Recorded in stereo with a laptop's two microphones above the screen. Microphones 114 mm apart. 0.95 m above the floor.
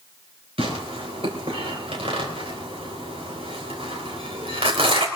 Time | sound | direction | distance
0.6 | tearing paper | 65° right (ahead or behind) | 3.5 m